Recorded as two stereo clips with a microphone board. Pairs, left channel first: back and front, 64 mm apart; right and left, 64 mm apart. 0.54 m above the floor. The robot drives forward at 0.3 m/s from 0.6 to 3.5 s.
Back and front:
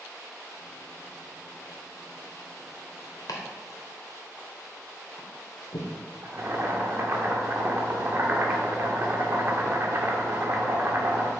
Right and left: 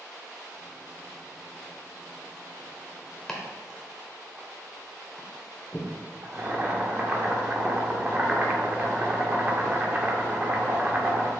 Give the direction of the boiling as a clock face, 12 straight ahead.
11 o'clock.